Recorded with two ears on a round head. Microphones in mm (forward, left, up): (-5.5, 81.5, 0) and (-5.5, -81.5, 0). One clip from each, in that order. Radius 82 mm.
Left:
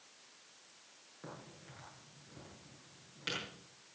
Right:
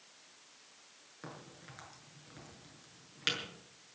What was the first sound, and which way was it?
A crack, 50° right (ahead or behind).